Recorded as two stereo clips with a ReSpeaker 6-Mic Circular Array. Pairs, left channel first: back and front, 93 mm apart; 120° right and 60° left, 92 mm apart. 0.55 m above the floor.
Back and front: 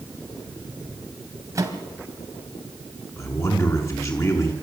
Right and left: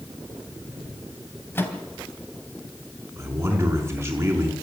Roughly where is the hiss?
No hiss in this recording.